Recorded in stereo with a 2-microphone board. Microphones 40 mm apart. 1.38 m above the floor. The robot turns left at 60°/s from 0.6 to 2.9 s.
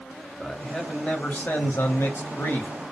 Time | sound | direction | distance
0.4 | a man speaking | straight behind | 0.7 m